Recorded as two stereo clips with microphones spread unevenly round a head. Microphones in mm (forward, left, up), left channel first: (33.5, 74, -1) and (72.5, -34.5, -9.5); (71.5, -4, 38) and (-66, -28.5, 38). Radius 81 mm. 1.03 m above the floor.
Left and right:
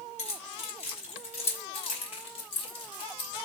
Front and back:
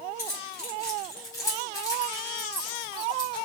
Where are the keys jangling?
80° left, 4.5 m; by 3.5 s 70° left, 2 m.